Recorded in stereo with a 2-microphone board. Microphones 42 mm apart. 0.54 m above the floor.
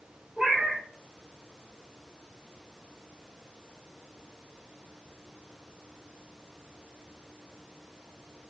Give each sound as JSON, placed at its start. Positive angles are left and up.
{"t": 0.4, "sound": "a cat meowing", "side_deg": -20, "distance_m": 0.8}